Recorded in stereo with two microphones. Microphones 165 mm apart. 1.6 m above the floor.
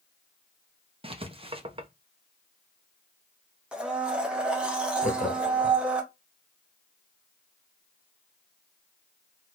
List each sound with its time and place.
1.0 s writing: 35° right (ahead or behind), 0.7 m
3.7 s a blender: 5° right (ahead or behind), 0.8 m
5.0 s laughter: 50° left (ahead or behind), 0.8 m